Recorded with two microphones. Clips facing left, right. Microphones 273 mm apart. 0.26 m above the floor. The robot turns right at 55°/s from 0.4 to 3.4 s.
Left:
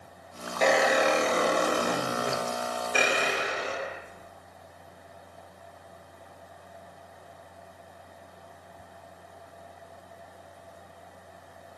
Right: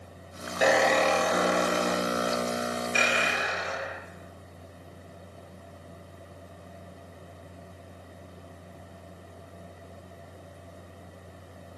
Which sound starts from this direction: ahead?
A squeak, at 0.6 s.